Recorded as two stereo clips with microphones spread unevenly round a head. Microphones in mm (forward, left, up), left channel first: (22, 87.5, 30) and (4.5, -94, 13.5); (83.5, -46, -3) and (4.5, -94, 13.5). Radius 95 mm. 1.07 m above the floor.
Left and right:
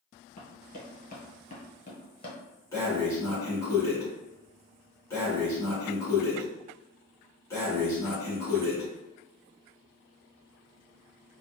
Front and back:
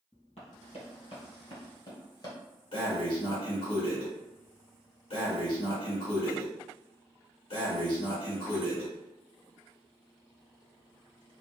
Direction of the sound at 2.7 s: 10° left.